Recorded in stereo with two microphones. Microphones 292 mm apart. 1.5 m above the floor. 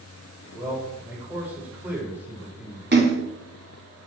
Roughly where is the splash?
Right.